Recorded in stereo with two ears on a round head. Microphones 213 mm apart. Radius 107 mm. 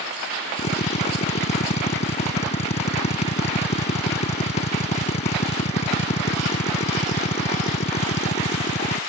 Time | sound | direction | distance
0.6 | a drill | 30° left (ahead or behind) | ?